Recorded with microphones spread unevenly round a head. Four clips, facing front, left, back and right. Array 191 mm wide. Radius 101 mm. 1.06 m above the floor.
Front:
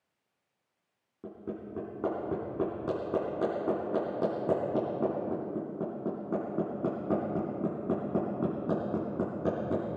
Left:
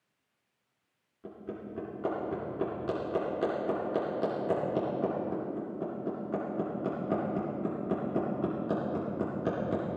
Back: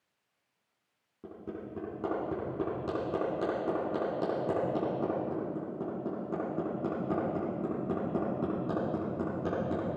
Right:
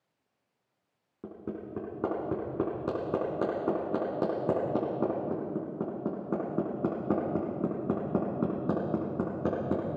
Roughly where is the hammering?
Right.